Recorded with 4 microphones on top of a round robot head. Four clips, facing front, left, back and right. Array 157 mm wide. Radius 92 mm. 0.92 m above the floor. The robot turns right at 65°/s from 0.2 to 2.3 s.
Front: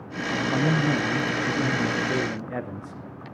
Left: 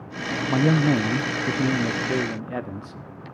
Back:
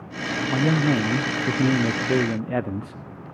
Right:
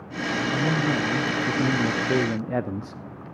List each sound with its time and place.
0.5 s a man speaking: 95° left, 0.9 m; by 3.0 s 145° right, 0.9 m